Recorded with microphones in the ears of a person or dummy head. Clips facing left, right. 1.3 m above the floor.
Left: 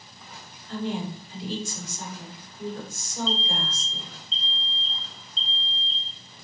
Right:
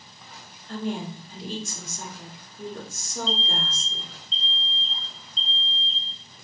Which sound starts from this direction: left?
An alarm, at 3.3 s.